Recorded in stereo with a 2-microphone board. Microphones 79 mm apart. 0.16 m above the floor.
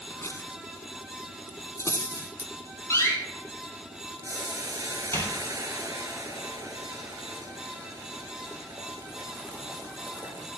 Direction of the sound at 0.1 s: 35° left (ahead or behind).